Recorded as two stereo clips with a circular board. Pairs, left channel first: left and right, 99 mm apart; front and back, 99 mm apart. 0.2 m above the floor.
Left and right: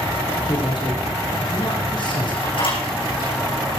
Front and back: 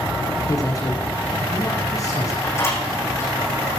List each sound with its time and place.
0.5 s a man speaking: 55° left, 5.5 m
2.4 s a door slam: 60° left, 7.5 m